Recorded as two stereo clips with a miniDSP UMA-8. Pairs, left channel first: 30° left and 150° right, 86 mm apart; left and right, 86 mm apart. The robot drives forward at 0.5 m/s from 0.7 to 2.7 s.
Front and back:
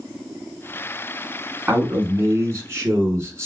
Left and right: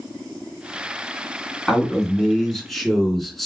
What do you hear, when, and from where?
1.7 s a man speaking: 170° left, 1.2 m; by 3.5 s 175° left, 1.5 m